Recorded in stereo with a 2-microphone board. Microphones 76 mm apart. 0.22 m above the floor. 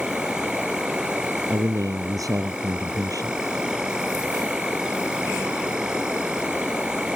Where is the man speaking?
50° right (ahead or behind).